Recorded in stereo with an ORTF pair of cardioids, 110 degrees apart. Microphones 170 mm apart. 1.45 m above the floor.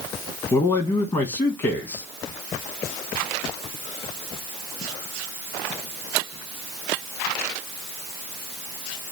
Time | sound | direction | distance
0.5 | a man speaking | 30° left | 1.3 m